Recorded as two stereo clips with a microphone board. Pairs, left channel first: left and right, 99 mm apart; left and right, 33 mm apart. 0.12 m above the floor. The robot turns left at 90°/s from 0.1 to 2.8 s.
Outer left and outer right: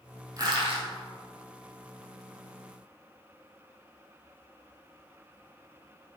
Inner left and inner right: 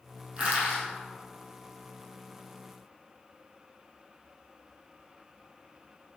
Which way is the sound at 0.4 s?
35° right (ahead or behind).